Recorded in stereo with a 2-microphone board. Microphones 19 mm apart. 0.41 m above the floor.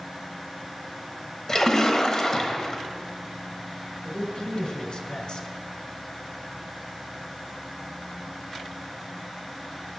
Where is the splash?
30° left (ahead or behind), 1.2 m.